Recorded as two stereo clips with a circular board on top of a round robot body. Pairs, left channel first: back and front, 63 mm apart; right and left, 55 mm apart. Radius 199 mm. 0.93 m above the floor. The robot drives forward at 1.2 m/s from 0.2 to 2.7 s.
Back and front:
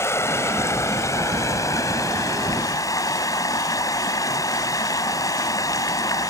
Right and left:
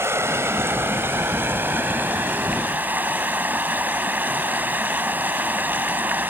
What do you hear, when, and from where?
0.0 s running water: 130° left; by 6.3 s 145° left